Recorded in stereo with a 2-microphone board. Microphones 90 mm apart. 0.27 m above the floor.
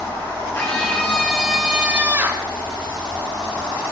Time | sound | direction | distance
0.5 | a scream | 25° left (ahead or behind) | 3 m